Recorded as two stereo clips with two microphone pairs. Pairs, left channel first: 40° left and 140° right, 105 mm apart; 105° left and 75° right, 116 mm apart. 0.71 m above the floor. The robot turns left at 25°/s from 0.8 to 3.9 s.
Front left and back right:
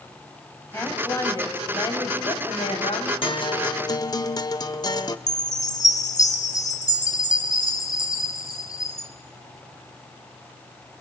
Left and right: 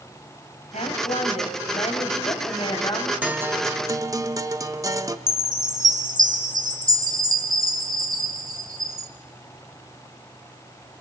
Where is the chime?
15° right, 1.6 m.